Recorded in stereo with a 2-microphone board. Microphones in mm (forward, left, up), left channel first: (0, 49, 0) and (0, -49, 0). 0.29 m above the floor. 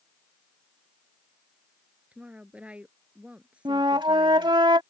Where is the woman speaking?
15° right (ahead or behind).